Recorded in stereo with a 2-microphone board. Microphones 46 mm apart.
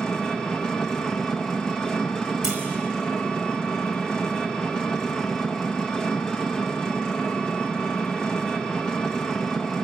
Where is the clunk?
10° right (ahead or behind), 4.5 m.